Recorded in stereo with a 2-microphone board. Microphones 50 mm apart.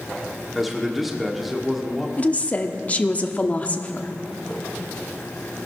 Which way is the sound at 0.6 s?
Centre (ahead or behind).